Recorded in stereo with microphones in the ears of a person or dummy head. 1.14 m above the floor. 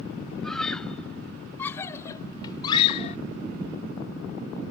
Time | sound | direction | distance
0.4 | a scream | 5° left (ahead or behind) | ?